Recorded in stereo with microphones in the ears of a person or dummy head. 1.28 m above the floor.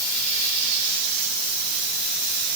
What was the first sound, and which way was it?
Only background noise.